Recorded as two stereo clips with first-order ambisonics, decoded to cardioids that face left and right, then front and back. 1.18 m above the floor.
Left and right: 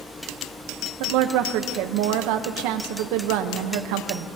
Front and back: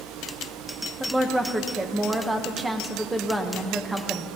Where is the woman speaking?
100° right, 0.9 m.